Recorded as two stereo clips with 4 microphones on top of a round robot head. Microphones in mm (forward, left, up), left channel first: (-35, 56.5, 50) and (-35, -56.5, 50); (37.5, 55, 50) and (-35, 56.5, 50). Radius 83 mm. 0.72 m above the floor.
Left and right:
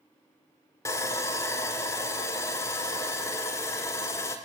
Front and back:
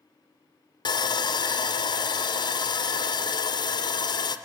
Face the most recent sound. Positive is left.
turn(degrees=20)